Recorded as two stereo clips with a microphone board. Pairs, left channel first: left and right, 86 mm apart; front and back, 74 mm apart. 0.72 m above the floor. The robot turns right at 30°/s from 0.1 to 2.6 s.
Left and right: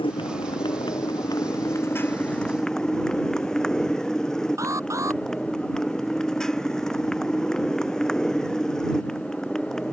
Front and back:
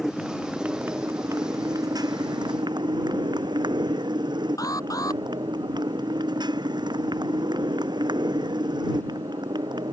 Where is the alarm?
35° right.